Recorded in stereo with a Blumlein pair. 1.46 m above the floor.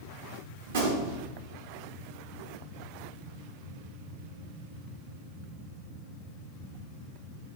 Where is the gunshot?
60° right, 0.7 m.